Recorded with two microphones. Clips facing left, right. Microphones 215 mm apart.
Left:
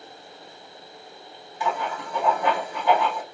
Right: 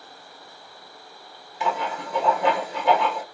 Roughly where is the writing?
Right.